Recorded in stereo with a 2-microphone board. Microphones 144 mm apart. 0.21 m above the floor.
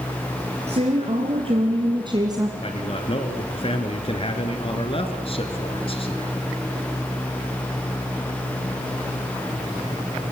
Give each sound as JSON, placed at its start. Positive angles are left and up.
{"t": 0.7, "sound": "a woman speaking", "side_deg": -55, "distance_m": 3.0}
{"t": 2.6, "sound": "a man speaking", "side_deg": 45, "distance_m": 2.5}